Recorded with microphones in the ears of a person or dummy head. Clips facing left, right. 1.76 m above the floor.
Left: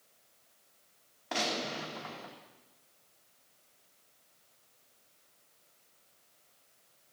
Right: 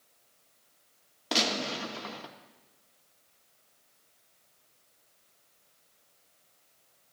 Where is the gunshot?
50° right (ahead or behind), 1.9 m.